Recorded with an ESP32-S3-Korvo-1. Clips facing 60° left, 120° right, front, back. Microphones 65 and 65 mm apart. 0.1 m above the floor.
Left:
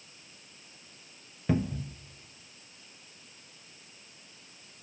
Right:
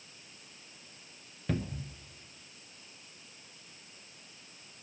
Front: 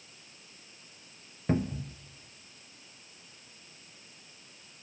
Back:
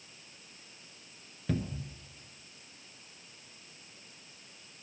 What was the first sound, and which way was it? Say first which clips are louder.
A cupboard door: left 6 dB, front 5 dB; 5° right.